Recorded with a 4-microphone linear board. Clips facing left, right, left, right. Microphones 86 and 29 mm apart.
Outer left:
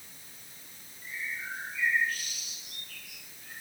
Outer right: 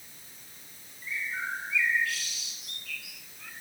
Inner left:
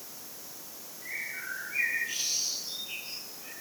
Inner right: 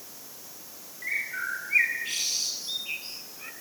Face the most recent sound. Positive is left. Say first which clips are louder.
# outer right 4 dB, inner right 6 dB
turn(degrees=-80)